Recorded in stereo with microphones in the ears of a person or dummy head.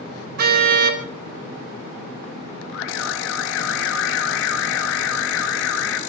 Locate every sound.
0.4 s a car horn: 55° right (ahead or behind), 3 m
2.7 s an alarm: 65° left (ahead or behind), 4 m